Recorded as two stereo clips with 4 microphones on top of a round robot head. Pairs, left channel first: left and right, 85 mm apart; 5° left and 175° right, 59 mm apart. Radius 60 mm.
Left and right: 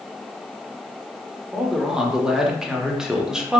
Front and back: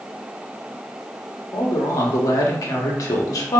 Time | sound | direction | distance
1.5 | a man speaking | 10° right | 1.0 m